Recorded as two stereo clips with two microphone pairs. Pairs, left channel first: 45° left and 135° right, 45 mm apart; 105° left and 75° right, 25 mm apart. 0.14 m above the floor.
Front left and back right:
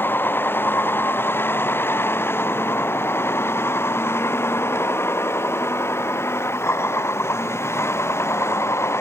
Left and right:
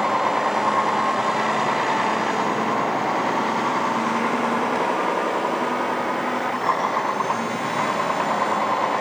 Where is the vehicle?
5° left; by 9.0 s 25° left.